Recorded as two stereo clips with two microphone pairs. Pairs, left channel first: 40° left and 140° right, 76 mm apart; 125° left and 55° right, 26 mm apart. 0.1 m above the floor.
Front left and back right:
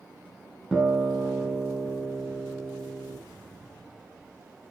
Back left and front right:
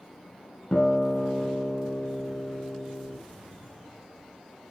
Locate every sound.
0.7 s a guitar: 130° left, 1.5 m